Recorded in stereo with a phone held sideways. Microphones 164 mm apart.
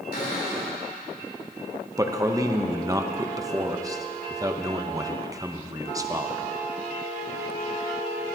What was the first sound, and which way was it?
A cupboard door, 70° left (ahead or behind).